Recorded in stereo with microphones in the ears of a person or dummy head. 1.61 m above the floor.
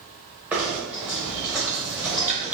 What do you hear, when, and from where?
0.5 s knocking: 5° right (ahead or behind), 0.8 m